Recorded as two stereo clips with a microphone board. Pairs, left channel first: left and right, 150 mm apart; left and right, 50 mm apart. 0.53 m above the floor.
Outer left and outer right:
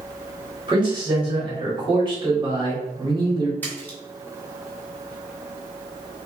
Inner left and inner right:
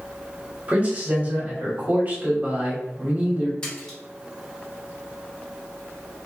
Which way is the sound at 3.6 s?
10° left (ahead or behind).